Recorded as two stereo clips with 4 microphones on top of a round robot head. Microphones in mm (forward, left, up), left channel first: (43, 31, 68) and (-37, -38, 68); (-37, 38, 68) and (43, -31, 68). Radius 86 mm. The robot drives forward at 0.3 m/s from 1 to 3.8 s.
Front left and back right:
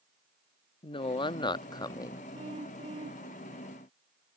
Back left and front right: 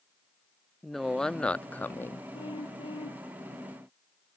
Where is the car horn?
175° right.